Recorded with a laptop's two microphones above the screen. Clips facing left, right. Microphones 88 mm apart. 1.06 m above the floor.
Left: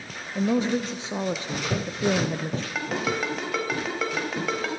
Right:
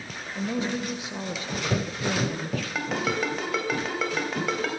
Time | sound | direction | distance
0.3 | a woman speaking | 30° left (ahead or behind) | 0.7 m
2.8 | a ringtone | centre (ahead or behind) | 3.5 m